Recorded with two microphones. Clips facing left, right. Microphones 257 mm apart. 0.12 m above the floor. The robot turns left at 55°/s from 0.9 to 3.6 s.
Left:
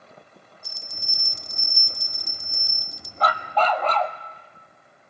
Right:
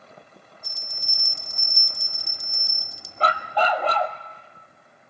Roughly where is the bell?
Ahead left.